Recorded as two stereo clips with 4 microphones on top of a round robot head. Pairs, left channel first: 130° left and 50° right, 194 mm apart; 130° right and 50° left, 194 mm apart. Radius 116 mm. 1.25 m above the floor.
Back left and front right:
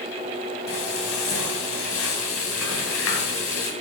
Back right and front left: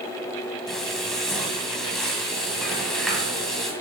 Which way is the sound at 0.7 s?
140° left.